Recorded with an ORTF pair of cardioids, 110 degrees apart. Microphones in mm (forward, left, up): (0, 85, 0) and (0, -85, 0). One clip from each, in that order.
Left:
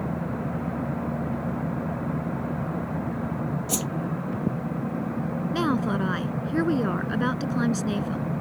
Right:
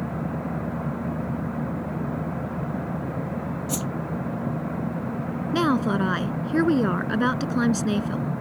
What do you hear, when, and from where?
3.7 s a whoosh: 25° left
5.5 s a woman speaking: 20° right